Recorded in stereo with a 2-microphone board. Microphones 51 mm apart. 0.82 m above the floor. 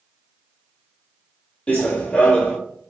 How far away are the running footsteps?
About 0.9 m.